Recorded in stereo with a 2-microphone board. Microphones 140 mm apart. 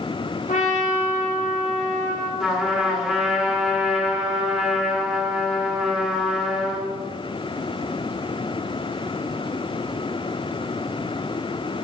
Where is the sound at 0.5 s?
65° left (ahead or behind), 2.5 m.